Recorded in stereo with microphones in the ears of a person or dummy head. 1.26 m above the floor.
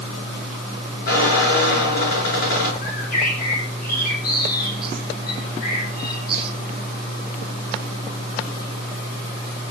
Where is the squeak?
55° left (ahead or behind), 6.5 m.